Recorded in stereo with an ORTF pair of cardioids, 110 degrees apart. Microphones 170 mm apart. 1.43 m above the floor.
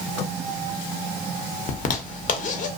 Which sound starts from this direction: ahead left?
A zipper, at 1.7 s.